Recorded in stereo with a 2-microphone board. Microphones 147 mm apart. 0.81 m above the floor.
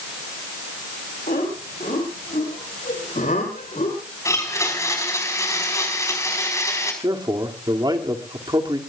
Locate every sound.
1.3 s laughter: 75° left (ahead or behind), 6 m; by 4.0 s 55° left (ahead or behind), 3.5 m
4.2 s a blender: 20° left (ahead or behind), 5 m
7.0 s a man speaking: 30° right (ahead or behind), 2.5 m